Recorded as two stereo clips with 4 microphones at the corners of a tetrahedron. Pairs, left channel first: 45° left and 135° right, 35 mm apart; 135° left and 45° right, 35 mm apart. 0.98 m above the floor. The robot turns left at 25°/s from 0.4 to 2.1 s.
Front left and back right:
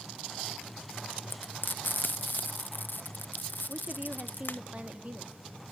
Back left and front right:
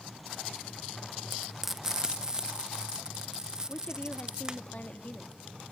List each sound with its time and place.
1.3 s frying: 45° left, 0.7 m; by 4.6 s 25° left, 0.7 m
3.7 s a woman speaking: 175° left, 1.5 m